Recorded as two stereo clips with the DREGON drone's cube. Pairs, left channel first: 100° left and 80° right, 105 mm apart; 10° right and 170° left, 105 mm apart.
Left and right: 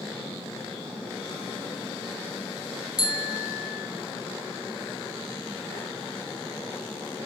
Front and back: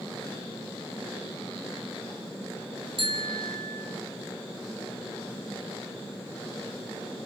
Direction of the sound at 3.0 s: 145° left.